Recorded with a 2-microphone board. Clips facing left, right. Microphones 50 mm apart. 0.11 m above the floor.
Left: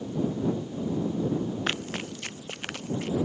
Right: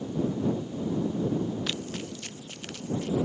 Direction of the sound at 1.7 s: 45° left (ahead or behind).